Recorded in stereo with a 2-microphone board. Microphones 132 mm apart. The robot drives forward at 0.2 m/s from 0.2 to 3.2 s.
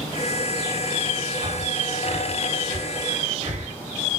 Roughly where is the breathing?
Right.